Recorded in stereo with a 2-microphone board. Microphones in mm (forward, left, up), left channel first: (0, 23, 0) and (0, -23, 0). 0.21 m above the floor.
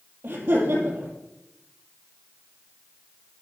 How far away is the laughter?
About 5 m.